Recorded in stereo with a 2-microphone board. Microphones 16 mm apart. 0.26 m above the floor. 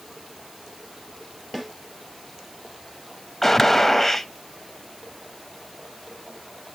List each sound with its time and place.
1.5 s a snare drum: 5° right (ahead or behind), 3 m
3.4 s a gunshot: 20° left (ahead or behind), 0.7 m